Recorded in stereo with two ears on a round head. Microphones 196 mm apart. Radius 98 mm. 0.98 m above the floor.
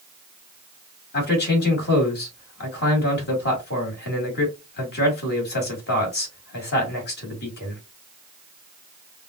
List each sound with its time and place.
1.1 s a man speaking: 50° left (ahead or behind), 2 m